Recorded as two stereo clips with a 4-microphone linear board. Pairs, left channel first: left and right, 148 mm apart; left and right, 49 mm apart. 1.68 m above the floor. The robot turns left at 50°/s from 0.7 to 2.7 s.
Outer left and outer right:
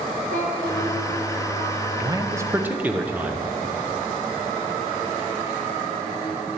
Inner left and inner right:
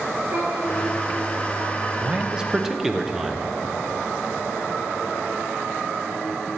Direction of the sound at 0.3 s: 65° right (ahead or behind).